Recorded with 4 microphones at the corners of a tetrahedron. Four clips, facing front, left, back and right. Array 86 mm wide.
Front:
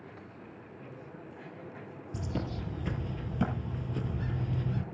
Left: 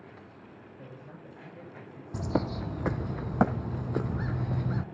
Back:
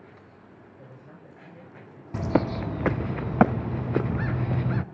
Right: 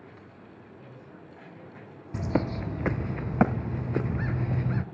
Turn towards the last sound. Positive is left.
turn(degrees=-175)